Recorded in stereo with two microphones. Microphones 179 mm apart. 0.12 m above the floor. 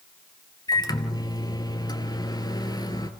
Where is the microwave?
20° left (ahead or behind), 2 m.